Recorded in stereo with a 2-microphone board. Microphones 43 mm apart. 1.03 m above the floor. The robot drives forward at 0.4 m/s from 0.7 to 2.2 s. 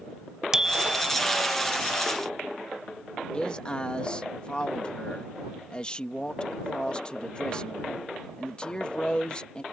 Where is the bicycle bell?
15° right (ahead or behind).